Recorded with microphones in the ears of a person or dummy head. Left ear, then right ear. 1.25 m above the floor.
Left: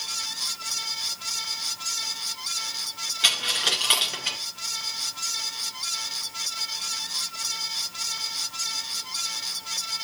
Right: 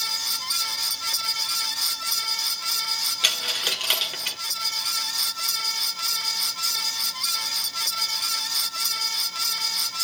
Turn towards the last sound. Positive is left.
turn(degrees=-10)  # may be behind; listen again after turning